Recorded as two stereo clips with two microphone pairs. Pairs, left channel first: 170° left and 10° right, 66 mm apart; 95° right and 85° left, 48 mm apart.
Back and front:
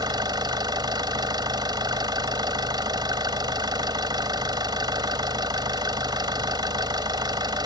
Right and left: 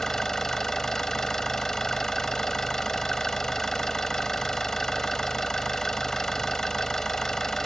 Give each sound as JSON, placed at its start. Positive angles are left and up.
{"t": 0.0, "sound": "an engine running", "azimuth_deg": -15}